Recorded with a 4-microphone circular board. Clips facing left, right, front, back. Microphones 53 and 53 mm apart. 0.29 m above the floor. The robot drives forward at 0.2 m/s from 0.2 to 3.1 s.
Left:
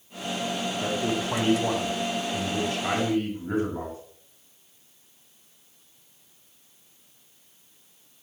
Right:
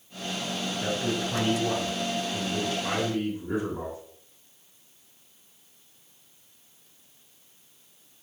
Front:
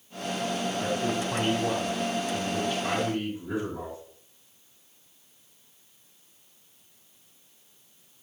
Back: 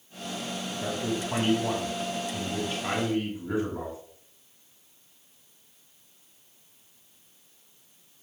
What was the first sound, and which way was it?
A man speaking, 110° left.